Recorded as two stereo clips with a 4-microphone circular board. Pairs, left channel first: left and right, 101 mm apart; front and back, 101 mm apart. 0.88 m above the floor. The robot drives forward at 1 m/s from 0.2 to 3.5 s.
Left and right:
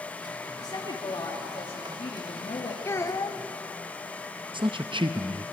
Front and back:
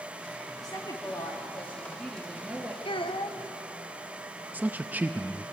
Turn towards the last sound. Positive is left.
turn(degrees=-110)